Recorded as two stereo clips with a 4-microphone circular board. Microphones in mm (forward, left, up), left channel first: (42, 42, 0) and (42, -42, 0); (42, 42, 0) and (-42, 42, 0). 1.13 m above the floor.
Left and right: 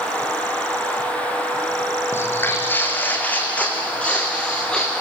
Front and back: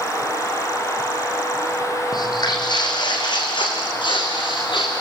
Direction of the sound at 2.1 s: 30° left.